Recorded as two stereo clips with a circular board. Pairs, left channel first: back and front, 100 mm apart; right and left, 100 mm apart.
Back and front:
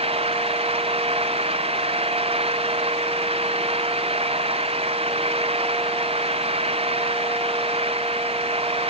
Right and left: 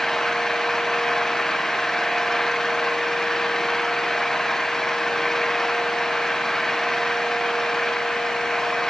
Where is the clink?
I don't hear a clink.